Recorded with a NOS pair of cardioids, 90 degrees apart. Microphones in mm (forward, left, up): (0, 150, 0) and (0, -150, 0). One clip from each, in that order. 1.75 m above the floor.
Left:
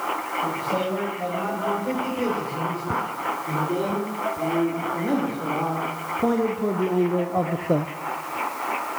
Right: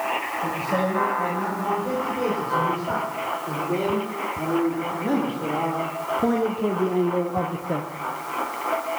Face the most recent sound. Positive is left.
turn(degrees=55)